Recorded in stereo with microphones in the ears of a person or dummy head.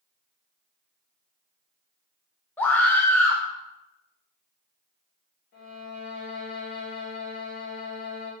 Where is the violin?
80° left, 1.7 m.